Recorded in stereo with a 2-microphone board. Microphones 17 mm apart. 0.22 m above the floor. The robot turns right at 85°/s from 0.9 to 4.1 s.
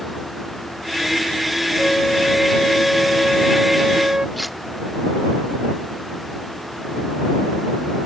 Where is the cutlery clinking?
5° right (ahead or behind).